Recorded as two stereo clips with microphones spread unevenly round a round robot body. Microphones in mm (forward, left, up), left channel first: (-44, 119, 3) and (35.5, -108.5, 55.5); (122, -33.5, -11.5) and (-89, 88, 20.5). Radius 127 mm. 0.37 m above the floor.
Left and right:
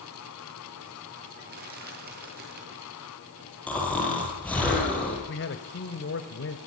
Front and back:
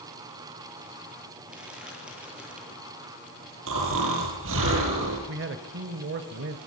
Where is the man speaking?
110° left, 1.8 m.